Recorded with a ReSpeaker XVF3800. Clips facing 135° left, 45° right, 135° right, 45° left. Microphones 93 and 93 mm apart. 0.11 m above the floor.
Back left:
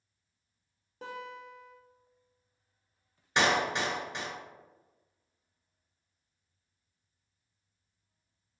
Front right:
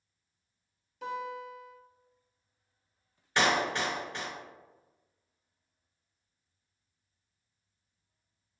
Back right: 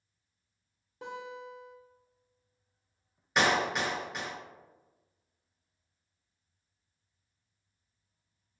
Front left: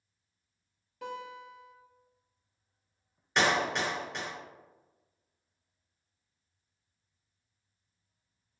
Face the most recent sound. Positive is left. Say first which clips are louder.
# even, even
turn(degrees=155)